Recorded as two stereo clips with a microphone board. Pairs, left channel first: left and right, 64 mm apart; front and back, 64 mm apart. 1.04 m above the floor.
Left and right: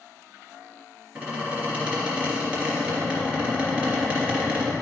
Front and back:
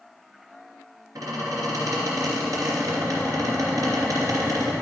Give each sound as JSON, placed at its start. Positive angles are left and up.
{"t": 1.1, "sound": "a squeak", "azimuth_deg": -160, "distance_m": 3.0}